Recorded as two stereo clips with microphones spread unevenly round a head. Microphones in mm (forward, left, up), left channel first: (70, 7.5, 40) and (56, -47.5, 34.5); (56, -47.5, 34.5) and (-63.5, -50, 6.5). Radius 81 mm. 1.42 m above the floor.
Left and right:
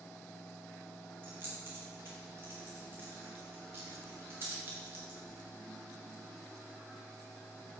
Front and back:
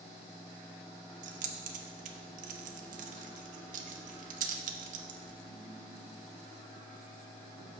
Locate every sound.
1.2 s keys jangling: straight behind, 0.7 m